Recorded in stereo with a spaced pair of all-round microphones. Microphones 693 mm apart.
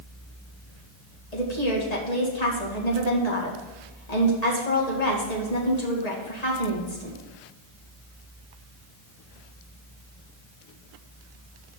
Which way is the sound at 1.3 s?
65° left (ahead or behind).